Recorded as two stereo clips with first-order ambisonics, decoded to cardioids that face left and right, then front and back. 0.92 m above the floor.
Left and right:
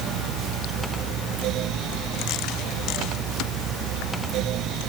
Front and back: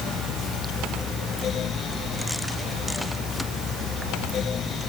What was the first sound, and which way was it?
Only background noise.